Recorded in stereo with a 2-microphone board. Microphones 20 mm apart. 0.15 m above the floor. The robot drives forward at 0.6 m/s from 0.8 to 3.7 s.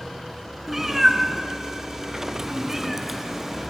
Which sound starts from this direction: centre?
A cat meowing, at 0.7 s.